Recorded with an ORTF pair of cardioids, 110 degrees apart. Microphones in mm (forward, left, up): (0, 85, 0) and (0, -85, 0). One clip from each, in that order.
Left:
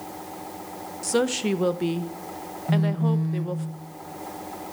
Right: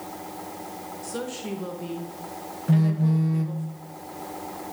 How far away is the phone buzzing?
About 1.2 m.